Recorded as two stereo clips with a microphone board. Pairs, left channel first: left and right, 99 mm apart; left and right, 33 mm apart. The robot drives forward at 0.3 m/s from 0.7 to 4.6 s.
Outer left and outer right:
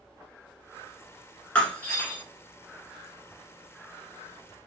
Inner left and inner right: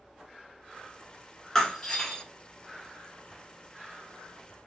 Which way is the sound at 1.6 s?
15° left (ahead or behind).